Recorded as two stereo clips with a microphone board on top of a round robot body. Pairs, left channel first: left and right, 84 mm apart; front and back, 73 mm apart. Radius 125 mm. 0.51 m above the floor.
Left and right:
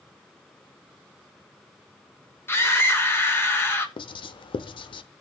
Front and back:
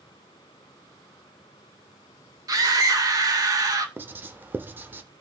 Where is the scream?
150° left, 2.5 m.